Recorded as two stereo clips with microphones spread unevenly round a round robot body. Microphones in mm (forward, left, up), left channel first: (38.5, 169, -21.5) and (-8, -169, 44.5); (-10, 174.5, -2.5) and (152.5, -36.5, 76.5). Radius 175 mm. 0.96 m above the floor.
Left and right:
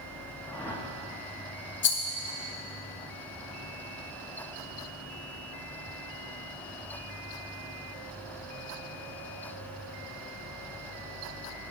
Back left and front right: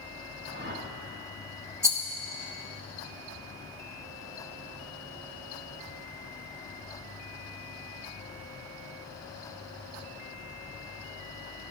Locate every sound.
0.5 s a whoosh: straight ahead, 1.8 m
1.8 s a rattle: 35° left, 1.8 m